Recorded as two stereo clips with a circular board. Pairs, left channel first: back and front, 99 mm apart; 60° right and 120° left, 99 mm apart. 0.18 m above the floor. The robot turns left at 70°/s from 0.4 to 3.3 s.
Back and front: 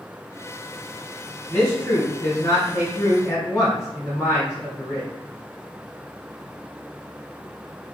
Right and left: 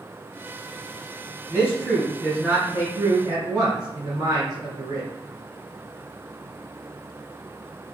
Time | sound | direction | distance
1.5 | a man speaking | 105° right | 1.9 m